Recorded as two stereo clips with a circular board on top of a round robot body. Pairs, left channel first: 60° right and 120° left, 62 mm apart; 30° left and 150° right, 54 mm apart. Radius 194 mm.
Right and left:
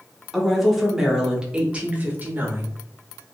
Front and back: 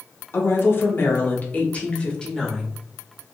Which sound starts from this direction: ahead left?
A woman speaking, at 0.3 s.